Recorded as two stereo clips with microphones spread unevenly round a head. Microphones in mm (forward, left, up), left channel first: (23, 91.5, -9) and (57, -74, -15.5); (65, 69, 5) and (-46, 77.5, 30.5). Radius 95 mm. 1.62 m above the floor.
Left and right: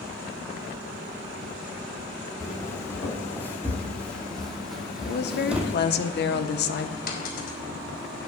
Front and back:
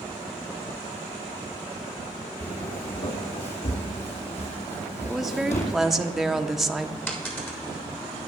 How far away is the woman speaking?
About 0.9 m.